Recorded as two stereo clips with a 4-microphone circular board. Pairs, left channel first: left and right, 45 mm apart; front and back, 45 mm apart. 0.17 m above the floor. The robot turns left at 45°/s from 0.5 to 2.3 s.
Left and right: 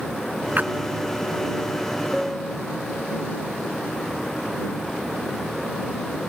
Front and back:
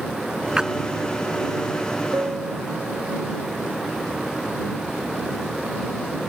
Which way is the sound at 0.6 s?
115° right.